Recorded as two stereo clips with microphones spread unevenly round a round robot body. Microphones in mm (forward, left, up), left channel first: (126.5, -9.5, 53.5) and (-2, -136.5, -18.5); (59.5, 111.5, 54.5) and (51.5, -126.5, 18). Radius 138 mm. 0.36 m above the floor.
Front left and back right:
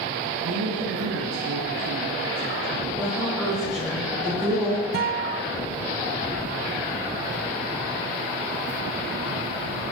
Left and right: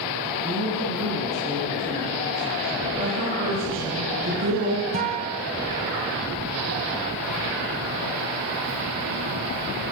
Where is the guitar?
150° right, 1.2 m.